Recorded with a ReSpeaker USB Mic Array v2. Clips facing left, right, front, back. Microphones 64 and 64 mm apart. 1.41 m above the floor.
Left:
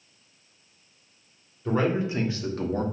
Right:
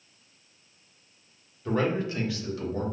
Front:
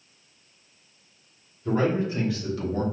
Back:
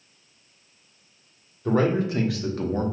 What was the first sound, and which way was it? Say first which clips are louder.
A man speaking: left 2 dB, back 2 dB; 175° left.